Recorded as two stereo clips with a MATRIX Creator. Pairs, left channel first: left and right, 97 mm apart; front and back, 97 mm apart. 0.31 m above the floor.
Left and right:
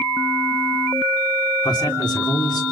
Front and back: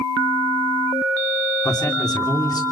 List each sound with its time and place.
1.6 s a man speaking: 45° left, 3.5 m